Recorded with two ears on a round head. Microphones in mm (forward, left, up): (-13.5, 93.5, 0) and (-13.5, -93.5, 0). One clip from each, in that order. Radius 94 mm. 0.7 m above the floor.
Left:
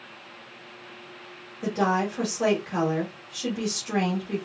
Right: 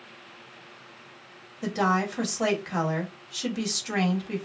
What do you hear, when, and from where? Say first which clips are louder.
1.6 s a woman speaking: left 1 dB; 30° right (ahead or behind), 1.0 m